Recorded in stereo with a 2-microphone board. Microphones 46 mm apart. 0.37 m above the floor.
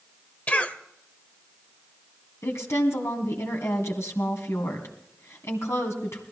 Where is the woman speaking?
70° left (ahead or behind), 2.5 m.